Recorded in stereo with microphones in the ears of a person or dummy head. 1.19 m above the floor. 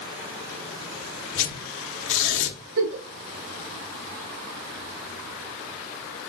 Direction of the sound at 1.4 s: 65° left (ahead or behind).